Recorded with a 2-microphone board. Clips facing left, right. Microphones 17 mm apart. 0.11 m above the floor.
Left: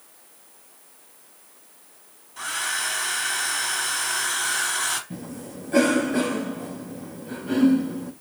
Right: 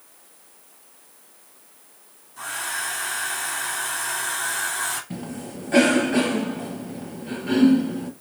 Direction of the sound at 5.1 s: 40° right (ahead or behind).